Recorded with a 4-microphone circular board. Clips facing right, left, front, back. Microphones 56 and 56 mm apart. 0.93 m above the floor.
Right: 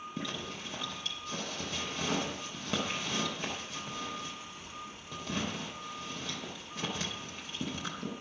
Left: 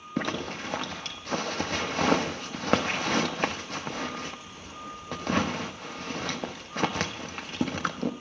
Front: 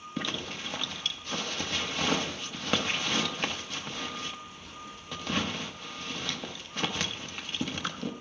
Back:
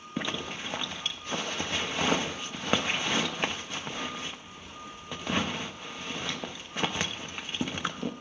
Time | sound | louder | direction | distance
0.2 | a zipper | left 11 dB, back 2 dB | 110° left | 0.6 m